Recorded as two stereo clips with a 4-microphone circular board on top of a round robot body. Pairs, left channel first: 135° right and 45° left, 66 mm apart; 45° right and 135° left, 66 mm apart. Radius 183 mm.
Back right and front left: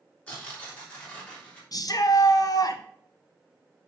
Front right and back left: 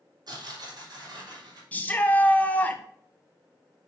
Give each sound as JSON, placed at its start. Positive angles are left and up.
{"t": 0.3, "sound": "tearing paper", "azimuth_deg": 155, "distance_m": 3.5}
{"t": 1.7, "sound": "a shout", "azimuth_deg": -110, "distance_m": 1.4}